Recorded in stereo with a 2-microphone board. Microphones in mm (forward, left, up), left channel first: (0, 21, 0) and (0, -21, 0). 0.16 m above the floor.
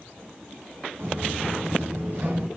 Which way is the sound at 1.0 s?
55° right (ahead or behind).